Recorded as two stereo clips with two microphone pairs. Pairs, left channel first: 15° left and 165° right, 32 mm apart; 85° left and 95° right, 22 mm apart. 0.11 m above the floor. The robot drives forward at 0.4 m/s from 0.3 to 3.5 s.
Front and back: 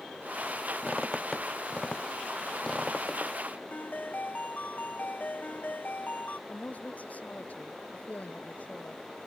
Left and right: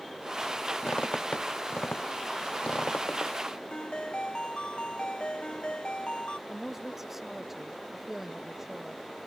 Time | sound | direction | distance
0.8 | a squeak | 85° left | ?
3.7 | a ringtone | 50° left | ?
6.5 | a woman speaking | 15° right | ?